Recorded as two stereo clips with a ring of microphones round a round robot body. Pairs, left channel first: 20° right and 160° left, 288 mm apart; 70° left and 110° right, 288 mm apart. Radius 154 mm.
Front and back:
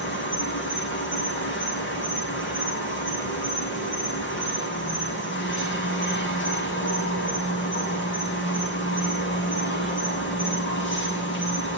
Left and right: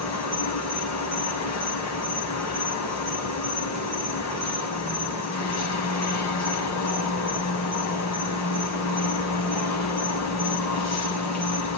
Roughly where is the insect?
Ahead left.